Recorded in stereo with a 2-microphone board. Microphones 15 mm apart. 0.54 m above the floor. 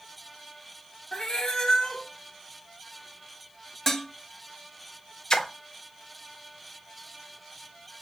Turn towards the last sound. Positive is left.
turn(degrees=45)  # may be behind; listen again after turning